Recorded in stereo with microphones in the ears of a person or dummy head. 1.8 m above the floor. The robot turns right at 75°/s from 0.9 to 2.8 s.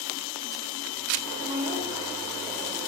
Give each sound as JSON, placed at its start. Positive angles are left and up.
{"t": 1.4, "sound": "a woman speaking", "azimuth_deg": -70, "distance_m": 1.6}